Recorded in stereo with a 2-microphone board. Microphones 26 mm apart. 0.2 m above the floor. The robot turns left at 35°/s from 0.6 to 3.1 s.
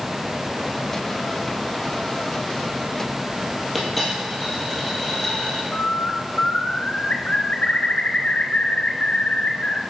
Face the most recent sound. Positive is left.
turn(degrees=55)  # may be behind; listen again after turning